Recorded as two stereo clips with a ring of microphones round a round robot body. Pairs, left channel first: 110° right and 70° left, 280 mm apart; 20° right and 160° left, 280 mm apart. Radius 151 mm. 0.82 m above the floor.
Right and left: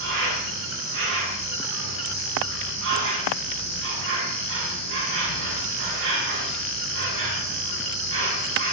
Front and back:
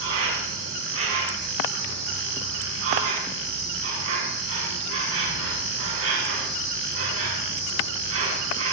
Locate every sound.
0.0 s an insect: 115° left, 6 m